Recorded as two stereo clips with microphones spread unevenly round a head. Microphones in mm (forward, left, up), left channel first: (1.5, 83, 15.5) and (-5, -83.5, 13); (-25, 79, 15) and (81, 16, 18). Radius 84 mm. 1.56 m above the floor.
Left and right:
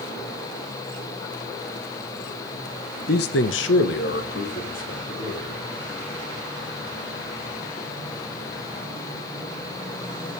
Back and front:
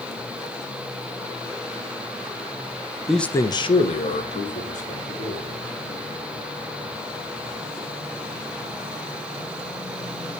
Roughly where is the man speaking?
Ahead left.